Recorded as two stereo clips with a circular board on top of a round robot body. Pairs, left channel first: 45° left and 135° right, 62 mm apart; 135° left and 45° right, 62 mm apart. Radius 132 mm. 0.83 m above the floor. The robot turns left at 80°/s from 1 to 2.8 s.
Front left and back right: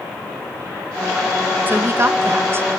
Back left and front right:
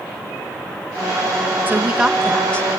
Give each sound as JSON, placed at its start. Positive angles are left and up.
{"t": 1.7, "sound": "a woman speaking", "azimuth_deg": -90, "distance_m": 1.0}